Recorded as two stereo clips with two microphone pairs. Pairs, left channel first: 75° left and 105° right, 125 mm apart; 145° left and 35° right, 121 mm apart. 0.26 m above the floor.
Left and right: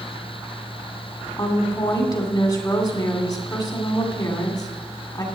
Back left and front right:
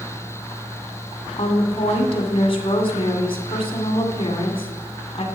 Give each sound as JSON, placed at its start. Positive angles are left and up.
{"t": 1.4, "sound": "a woman speaking", "azimuth_deg": 125, "distance_m": 2.0}